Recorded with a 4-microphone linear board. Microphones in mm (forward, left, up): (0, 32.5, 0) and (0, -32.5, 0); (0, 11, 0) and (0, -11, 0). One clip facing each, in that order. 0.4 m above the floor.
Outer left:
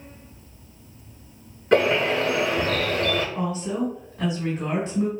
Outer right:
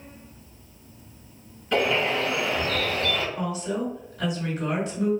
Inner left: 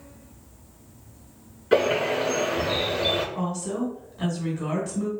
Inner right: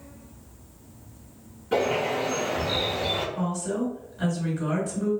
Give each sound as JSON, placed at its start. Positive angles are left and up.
{"t": 1.7, "sound": "a bird", "side_deg": 50, "distance_m": 1.0}
{"t": 3.4, "sound": "a woman speaking", "side_deg": 35, "distance_m": 1.7}